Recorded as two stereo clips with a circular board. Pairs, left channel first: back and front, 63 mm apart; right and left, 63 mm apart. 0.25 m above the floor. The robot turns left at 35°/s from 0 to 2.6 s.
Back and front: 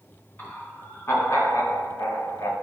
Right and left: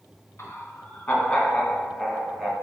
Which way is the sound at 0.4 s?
125° right.